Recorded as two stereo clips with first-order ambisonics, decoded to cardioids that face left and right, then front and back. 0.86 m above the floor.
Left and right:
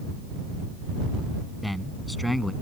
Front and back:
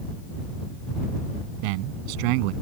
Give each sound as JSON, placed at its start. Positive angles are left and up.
{"t": 1.6, "sound": "a man speaking", "azimuth_deg": 175}